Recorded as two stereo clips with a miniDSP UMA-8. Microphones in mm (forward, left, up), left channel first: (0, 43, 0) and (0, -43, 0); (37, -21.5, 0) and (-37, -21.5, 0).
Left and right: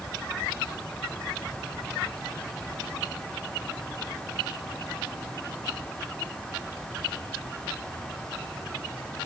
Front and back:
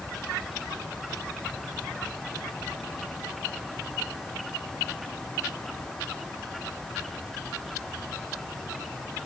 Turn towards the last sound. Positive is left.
No sound to turn to.